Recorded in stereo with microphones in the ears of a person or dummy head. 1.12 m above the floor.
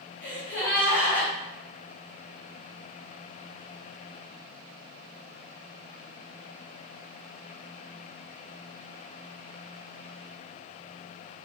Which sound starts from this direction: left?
A gasp, at 0.2 s.